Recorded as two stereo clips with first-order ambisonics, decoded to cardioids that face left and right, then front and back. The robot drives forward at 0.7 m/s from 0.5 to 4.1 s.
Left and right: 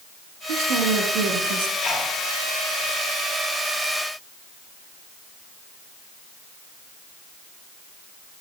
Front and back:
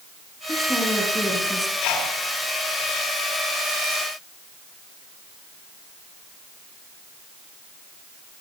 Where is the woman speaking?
80° right, 6.5 m; by 1.7 s 90° right, 6.5 m.